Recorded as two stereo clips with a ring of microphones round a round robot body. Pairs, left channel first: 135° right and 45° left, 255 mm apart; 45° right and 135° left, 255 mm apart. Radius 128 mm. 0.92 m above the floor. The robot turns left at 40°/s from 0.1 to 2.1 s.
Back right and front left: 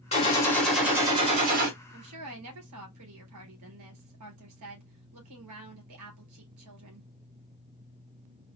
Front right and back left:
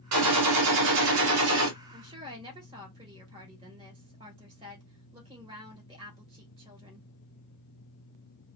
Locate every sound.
0.1 s a gunshot: 160° left, 2.5 m; by 1.7 s 95° left, 2.5 m
1.9 s a woman speaking: 75° left, 3.5 m; by 7.1 s 65° left, 3.5 m